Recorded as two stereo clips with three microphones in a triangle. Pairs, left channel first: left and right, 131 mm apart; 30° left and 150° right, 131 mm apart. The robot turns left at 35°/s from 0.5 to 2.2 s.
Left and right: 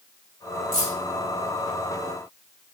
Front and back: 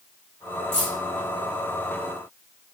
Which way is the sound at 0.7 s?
110° left.